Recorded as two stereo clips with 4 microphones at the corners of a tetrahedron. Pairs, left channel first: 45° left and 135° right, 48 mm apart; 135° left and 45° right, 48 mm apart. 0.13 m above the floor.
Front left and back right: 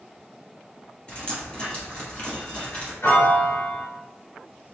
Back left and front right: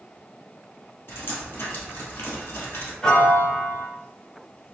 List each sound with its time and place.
1.1 s dripping: 110° left, 1.9 m
3.0 s a piano: 70° left, 1.0 m